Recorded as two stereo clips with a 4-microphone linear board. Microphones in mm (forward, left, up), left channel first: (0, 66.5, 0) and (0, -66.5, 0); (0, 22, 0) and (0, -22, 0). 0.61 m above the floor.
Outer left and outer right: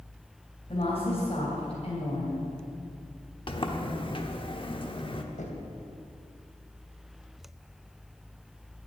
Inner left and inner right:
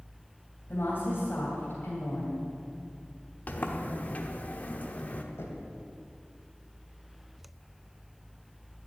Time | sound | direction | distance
0.7 | a woman speaking | 45° left (ahead or behind) | 3 m
3.5 | a sliding door | 40° left (ahead or behind) | 1.1 m
5.4 | knocking | 70° left (ahead or behind) | 2.5 m